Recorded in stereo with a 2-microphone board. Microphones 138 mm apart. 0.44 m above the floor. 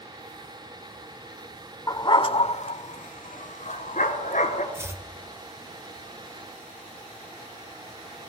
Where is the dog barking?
30° left (ahead or behind), 0.8 m; by 4.6 s 75° left (ahead or behind), 1.6 m.